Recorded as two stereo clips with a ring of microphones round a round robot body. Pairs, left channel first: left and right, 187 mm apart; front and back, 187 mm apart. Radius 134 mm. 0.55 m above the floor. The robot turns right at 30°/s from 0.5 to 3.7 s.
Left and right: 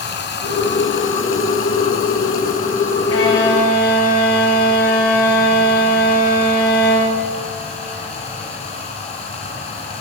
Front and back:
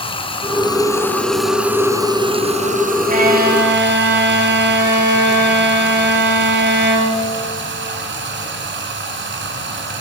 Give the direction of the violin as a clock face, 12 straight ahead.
8 o'clock.